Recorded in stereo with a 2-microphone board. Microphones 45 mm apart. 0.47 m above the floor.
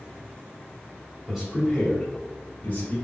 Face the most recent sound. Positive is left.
turn(degrees=40)  # may be behind; listen again after turning